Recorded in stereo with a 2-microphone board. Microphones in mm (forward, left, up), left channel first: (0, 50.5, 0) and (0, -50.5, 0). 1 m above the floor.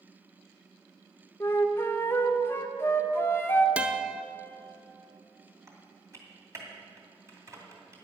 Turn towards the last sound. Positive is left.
turn(degrees=-30)  # may be behind; listen again after turning